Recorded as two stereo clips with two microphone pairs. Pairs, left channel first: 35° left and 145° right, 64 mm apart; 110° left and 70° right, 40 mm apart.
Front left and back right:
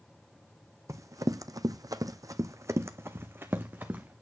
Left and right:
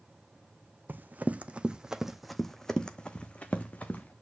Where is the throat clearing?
I don't hear throat clearing.